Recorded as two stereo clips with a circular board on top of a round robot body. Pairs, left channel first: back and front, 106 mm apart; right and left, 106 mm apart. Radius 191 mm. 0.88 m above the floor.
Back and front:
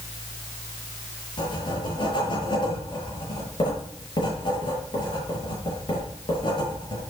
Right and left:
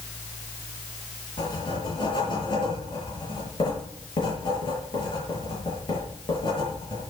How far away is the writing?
About 8 m.